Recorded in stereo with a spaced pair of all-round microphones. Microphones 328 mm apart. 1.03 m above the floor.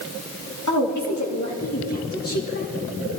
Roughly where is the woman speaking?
Left.